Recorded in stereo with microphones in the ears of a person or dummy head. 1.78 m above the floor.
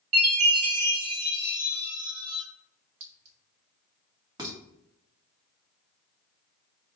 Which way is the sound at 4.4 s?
25° right (ahead or behind).